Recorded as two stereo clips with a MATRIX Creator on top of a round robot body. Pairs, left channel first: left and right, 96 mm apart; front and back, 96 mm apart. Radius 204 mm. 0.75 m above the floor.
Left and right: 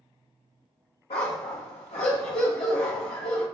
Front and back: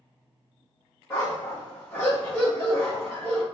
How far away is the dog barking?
About 0.5 m.